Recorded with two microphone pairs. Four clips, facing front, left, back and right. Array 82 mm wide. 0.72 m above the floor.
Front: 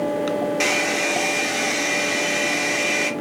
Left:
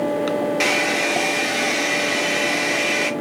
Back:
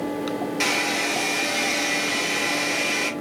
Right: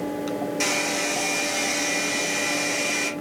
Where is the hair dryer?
70° left, 0.8 m.